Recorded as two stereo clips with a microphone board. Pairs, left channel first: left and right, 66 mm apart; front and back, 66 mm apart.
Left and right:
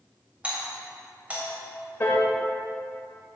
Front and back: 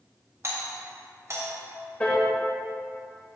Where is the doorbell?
155° right, 2 m.